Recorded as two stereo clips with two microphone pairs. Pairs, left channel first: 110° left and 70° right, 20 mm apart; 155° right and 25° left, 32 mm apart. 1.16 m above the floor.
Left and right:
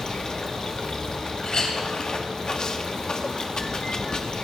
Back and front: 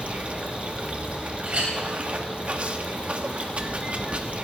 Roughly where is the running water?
Ahead left.